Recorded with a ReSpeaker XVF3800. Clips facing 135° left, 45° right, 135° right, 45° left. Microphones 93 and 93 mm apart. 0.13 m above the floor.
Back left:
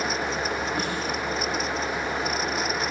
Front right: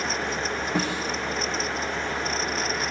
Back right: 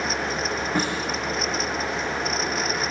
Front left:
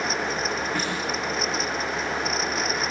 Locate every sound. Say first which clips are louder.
0.8 s a snare drum: front right 2 dB, back right 3 dB; 65° right, 8 m